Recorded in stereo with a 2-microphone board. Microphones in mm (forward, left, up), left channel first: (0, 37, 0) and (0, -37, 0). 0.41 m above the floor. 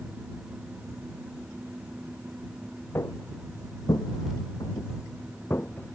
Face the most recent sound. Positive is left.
turn(degrees=25)  # may be behind; listen again after turning